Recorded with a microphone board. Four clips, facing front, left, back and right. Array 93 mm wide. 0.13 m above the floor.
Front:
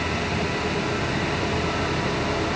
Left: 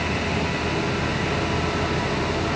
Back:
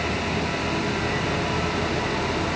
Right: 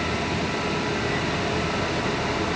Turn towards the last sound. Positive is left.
No sound to turn to.